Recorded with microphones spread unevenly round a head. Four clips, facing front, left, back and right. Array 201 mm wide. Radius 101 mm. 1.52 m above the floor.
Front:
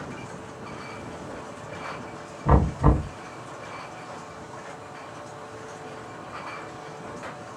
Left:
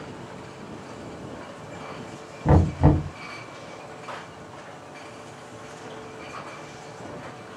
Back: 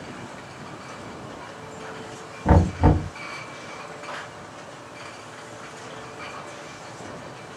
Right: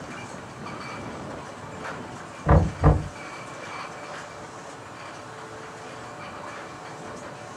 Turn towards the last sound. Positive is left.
turn(degrees=125)